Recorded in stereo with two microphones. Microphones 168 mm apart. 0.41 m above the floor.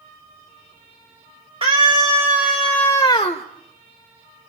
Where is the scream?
35° right (ahead or behind), 1.5 m; by 3.5 s 40° left (ahead or behind), 1.2 m.